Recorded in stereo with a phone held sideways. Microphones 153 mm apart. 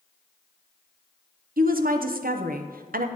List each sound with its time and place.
1.6 s a woman speaking: 70° right (ahead or behind), 0.6 m